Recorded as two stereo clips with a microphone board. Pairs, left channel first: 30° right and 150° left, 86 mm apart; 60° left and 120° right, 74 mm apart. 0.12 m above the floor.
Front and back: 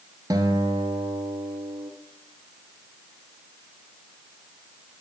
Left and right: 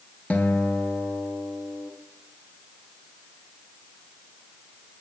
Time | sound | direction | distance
0.3 | a guitar | 130° left | 1.0 m